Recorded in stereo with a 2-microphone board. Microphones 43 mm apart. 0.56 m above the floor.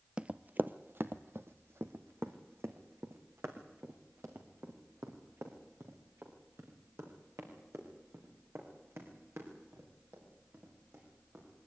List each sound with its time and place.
0.2 s running footsteps: 25° right (ahead or behind), 0.6 m; by 11.4 s 85° right, 8.5 m